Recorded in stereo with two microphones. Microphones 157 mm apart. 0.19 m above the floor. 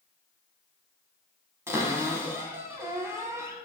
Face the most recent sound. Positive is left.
turn(degrees=-20)  # may be behind; listen again after turning